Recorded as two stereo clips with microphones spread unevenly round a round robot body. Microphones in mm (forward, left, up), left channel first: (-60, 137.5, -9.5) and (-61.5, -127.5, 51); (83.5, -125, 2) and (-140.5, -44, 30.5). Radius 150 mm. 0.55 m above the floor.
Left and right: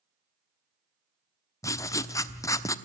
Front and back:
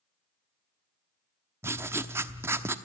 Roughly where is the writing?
Left.